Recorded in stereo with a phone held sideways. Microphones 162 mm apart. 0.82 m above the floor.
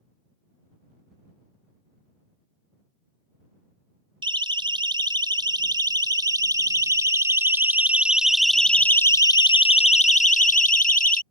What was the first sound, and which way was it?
A siren, 30° right (ahead or behind).